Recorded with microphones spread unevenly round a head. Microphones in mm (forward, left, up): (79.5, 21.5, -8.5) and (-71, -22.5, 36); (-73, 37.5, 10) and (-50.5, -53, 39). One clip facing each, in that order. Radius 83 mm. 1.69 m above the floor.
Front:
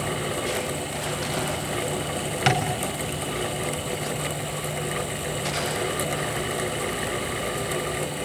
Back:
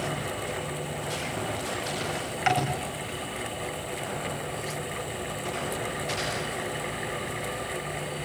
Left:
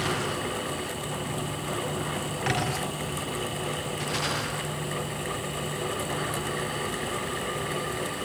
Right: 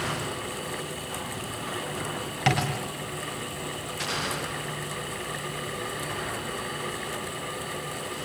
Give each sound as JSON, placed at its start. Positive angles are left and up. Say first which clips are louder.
{"t": 2.5, "sound": "tapping", "louder": "front 1 dB, right 4 dB", "azimuth_deg": -35, "distance_m": 7.5}